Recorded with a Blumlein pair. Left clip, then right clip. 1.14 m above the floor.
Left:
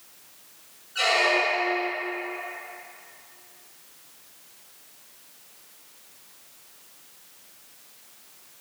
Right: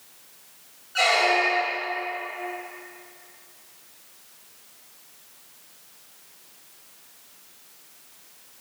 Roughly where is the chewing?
No chewing in this recording.